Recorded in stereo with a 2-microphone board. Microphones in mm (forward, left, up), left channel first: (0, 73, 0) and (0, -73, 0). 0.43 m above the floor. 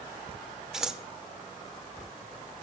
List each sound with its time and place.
0.7 s scissors: 5° right (ahead or behind), 0.5 m